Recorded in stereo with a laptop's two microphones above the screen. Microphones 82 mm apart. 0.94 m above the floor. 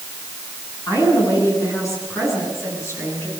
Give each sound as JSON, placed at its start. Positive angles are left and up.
{"t": 0.9, "sound": "a woman speaking", "side_deg": 40, "distance_m": 10.0}